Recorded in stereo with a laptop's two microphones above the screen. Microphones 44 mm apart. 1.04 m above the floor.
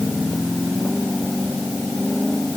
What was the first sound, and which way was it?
Only background noise.